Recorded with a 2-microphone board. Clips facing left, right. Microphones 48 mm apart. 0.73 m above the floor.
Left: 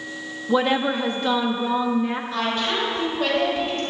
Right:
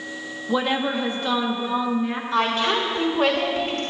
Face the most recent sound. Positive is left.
turn(degrees=-65)  # may be behind; listen again after turning